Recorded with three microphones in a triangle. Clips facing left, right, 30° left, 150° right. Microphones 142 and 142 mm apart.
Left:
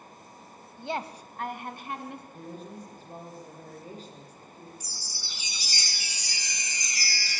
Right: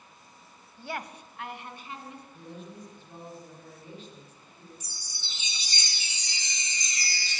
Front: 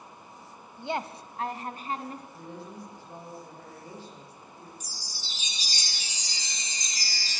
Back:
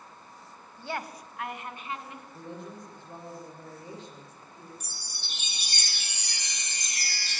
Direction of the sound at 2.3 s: 140° left.